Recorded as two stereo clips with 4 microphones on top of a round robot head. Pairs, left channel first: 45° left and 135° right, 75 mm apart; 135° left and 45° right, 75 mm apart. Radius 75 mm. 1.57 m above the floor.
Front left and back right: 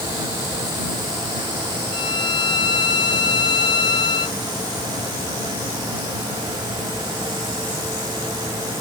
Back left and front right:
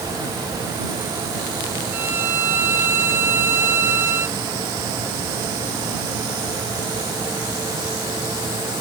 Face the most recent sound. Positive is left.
turn(degrees=20)